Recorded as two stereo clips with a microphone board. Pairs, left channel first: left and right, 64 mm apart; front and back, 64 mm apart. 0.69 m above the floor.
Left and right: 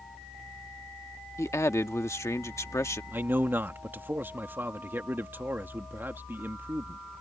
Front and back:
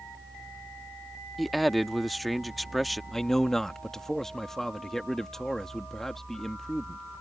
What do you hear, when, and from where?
1.4 s a man speaking: 85° left
3.1 s a man speaking: 80° right